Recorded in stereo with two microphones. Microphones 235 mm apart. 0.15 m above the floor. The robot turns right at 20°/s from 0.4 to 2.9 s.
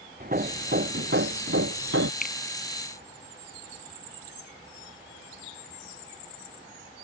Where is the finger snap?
40° left (ahead or behind); by 2.4 s 45° left (ahead or behind).